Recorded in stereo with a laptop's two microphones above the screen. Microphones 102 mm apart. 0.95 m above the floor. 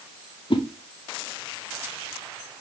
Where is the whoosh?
55° left (ahead or behind), 0.5 m.